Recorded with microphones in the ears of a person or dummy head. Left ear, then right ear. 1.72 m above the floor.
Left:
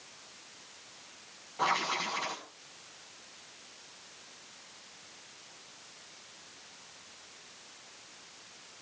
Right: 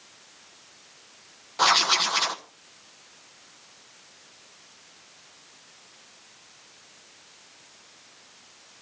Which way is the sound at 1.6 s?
45° right (ahead or behind).